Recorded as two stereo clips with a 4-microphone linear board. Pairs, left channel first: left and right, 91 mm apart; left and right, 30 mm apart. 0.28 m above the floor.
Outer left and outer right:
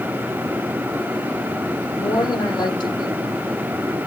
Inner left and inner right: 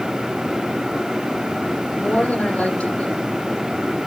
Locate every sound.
2.0 s a woman speaking: 50° left (ahead or behind), 10 m